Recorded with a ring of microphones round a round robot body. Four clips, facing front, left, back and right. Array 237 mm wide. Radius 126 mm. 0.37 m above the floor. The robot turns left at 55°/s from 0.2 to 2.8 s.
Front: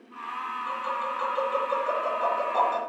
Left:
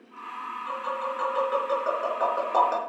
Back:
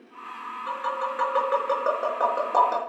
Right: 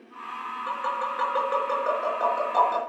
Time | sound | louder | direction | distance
0.7 | tapping | right 2 dB, back 4 dB | 115° right | 6 m